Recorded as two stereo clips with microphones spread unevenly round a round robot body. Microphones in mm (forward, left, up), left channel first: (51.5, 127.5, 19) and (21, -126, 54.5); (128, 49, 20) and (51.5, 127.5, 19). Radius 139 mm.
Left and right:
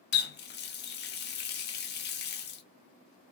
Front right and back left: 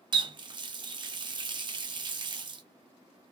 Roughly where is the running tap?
Left.